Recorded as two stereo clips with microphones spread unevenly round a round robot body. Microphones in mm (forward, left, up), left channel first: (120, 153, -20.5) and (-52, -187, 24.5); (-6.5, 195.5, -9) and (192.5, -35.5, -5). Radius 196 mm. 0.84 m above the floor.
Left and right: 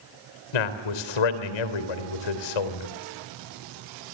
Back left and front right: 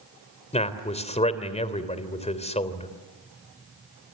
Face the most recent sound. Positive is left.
turn(degrees=60)